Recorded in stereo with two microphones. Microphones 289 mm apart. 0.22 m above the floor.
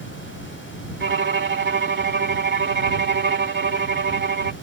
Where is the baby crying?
No baby crying in this recording.